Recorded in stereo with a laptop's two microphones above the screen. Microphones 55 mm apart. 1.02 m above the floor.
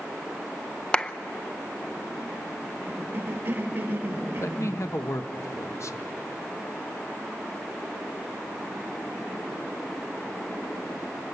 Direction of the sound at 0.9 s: 20° left (ahead or behind).